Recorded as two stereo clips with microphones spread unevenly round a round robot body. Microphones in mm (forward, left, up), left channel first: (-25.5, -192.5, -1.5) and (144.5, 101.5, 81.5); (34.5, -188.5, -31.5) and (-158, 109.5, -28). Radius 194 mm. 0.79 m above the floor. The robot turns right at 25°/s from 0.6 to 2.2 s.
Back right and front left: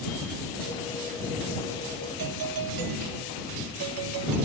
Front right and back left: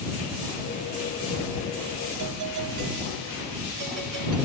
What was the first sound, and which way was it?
A doorbell, 85° left.